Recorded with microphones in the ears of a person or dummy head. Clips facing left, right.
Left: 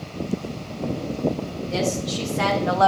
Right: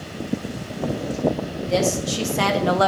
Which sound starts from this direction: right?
A woman speaking, at 1.6 s.